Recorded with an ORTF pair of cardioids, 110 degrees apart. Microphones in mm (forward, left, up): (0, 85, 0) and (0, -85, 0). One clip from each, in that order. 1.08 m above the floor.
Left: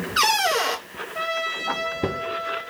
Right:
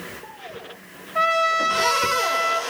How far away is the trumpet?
About 0.8 m.